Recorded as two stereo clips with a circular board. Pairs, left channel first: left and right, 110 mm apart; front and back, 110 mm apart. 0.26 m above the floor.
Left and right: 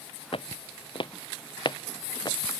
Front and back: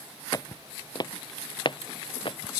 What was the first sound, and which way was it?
Footsteps, 55° left.